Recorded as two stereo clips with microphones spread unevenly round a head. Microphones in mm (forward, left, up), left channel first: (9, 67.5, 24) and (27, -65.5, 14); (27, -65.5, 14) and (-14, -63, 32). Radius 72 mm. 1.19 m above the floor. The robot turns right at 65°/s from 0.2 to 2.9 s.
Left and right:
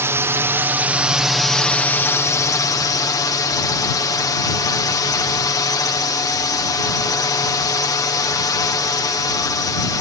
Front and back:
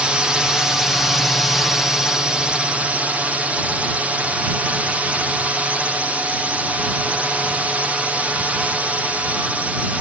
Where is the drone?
80° right; by 10.0 s 95° left.